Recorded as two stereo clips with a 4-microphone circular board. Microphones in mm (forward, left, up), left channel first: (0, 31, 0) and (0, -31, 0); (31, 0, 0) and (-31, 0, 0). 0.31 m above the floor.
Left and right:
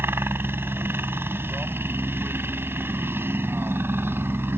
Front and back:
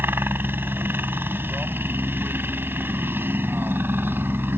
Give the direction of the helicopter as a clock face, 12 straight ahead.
4 o'clock.